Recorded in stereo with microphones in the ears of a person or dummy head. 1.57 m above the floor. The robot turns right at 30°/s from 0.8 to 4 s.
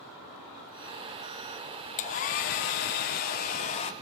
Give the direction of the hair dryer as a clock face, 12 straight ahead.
10 o'clock.